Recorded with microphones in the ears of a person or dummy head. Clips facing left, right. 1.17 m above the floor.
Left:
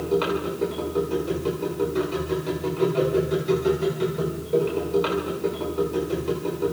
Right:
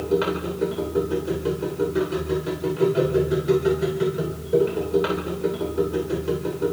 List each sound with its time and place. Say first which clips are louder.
0.0 s a machine running: right 1 dB; 10° right (ahead or behind), 3.5 m